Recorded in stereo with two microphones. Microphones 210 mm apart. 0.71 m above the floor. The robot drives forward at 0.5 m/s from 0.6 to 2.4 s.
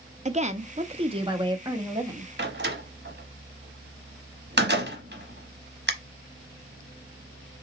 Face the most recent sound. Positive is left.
turn(degrees=-50)  # may be behind; listen again after turning